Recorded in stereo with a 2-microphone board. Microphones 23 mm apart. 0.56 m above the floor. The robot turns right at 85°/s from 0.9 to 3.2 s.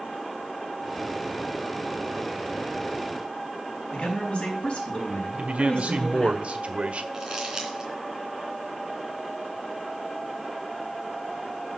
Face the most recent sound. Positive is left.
turn(degrees=-25)  # may be behind; listen again after turning